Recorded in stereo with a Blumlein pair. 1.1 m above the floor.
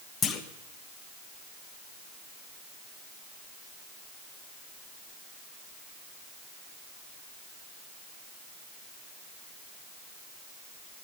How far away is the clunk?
About 1.1 m.